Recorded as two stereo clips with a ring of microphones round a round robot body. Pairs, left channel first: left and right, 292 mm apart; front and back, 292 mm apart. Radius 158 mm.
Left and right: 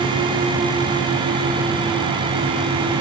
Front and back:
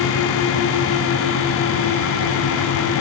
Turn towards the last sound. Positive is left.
No sound to turn to.